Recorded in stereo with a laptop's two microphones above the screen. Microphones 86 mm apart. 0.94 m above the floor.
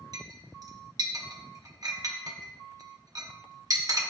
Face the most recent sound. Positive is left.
turn(degrees=-45)  # may be behind; listen again after turning